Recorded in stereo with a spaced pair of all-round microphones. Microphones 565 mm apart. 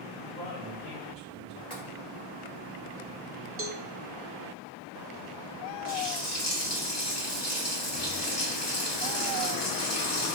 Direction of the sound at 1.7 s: 10° left (ahead or behind).